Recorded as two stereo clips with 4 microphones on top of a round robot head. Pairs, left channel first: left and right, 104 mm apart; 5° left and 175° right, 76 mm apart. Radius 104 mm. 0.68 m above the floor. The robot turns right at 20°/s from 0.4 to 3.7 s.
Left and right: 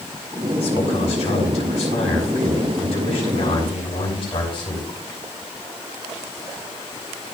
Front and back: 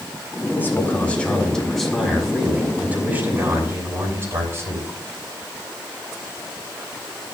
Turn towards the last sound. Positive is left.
turn(degrees=130)